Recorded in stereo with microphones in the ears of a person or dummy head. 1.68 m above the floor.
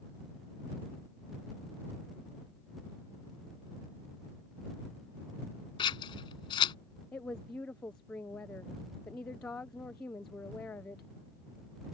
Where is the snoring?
No snoring in this recording.